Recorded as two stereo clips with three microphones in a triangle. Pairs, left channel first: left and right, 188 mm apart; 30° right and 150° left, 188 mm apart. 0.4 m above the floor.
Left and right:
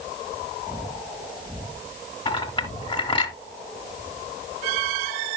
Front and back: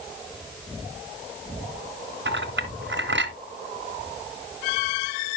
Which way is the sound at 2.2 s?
155° left.